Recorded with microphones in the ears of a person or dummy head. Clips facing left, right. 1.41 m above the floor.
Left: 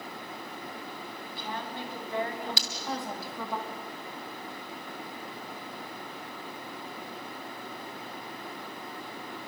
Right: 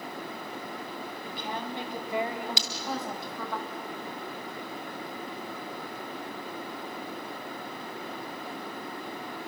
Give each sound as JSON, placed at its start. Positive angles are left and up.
{"t": 1.2, "sound": "a woman speaking", "side_deg": -20, "distance_m": 4.0}
{"t": 2.6, "sound": "breaking glass", "side_deg": -20, "distance_m": 1.8}